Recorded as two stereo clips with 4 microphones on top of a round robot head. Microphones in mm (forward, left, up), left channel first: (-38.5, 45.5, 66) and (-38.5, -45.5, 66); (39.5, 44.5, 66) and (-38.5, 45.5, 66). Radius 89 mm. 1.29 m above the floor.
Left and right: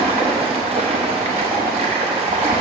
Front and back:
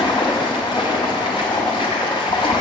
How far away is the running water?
About 0.8 m.